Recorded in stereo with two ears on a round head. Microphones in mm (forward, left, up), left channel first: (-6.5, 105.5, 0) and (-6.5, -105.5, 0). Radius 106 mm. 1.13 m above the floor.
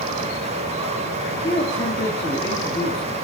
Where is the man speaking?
15° left (ahead or behind), 2.5 m.